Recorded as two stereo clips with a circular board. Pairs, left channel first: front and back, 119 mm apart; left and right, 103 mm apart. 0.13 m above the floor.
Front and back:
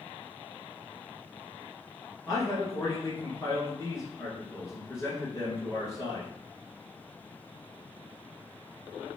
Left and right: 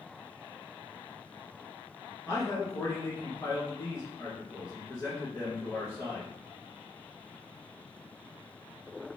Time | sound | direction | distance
2.3 | a man speaking | 50° left | 1.6 m